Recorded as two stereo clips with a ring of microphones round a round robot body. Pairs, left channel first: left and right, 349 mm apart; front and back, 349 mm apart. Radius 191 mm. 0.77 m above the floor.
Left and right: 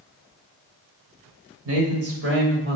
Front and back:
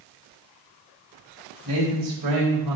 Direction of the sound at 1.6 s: 135° right.